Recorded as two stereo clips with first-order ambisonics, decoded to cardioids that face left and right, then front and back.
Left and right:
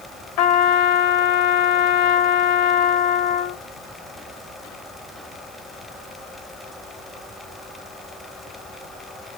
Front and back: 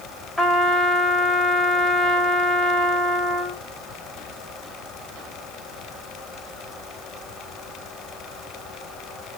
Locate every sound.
0.4 s a trumpet: 90° left, 1.3 m